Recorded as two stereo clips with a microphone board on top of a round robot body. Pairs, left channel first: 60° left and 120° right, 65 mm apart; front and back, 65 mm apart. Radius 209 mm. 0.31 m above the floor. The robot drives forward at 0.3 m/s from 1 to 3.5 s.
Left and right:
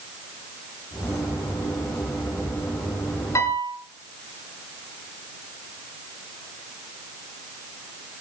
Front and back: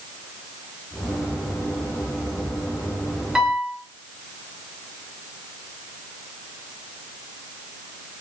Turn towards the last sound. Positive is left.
turn(degrees=100)